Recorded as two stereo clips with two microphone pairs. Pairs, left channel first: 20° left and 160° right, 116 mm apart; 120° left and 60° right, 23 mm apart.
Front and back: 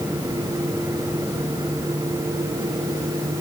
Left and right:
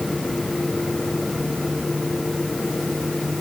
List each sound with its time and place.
Only background noise.